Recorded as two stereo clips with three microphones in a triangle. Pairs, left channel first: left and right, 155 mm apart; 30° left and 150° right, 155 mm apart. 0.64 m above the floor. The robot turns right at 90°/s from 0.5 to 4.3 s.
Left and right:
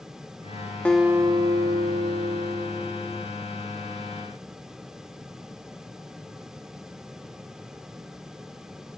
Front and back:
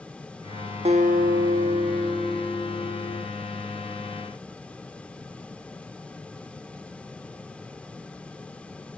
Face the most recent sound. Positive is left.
turn(degrees=120)